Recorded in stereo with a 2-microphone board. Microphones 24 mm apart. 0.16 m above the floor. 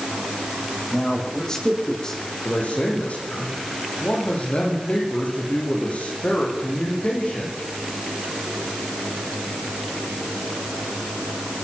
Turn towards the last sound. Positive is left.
turn(degrees=70)  # may be behind; listen again after turning